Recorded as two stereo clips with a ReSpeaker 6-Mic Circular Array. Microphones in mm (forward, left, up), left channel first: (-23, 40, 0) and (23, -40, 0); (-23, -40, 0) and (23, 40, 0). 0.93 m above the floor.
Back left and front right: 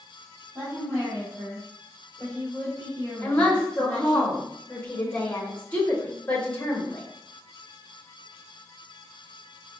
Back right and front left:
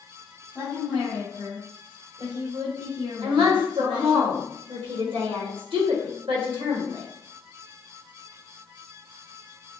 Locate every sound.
0.6 s a woman speaking: 5° right, 1.8 m; by 4.2 s 35° left, 4 m
3.2 s a woman speaking: 45° left, 1.2 m